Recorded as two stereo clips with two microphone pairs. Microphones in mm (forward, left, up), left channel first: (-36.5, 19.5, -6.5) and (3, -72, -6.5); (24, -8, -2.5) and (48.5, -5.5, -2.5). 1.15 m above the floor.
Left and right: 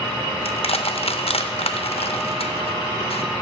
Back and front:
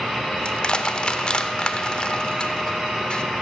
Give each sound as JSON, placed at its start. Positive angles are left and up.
{"t": 0.5, "sound": "crushing", "azimuth_deg": 130, "distance_m": 0.6}